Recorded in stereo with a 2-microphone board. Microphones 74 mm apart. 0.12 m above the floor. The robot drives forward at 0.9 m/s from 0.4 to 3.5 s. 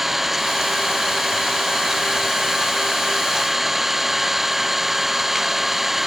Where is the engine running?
5° right (ahead or behind).